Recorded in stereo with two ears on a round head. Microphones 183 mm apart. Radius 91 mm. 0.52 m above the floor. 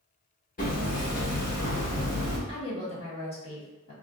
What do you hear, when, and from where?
0.6 s hammering: 40° left (ahead or behind), 1.0 m
2.5 s a woman speaking: 30° left (ahead or behind), 1.1 m